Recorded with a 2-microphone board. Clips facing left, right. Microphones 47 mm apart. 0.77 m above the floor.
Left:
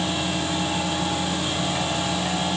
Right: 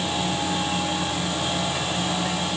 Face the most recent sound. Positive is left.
No sound to turn to.